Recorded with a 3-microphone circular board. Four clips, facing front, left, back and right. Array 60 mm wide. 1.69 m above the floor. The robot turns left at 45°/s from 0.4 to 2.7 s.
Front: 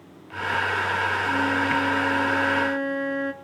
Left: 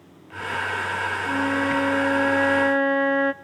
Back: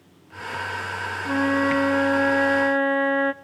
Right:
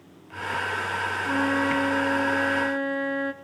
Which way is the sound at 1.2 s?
165° right.